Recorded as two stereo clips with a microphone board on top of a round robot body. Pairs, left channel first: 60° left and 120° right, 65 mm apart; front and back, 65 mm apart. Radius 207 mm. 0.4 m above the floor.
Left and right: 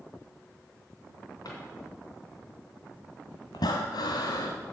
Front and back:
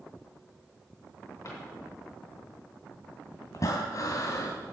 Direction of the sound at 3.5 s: 40° left.